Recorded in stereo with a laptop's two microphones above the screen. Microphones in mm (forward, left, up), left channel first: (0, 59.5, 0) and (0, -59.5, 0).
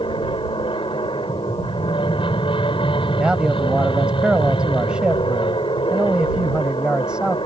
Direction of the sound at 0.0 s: 45° left (ahead or behind).